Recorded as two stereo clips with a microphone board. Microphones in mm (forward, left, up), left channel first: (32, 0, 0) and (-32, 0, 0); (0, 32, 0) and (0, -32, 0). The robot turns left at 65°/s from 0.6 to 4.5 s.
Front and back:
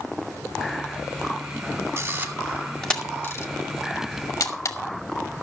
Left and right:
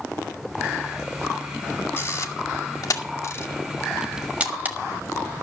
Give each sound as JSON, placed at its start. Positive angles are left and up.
{"t": 2.0, "sound": "a camera shutter", "azimuth_deg": 135, "distance_m": 1.6}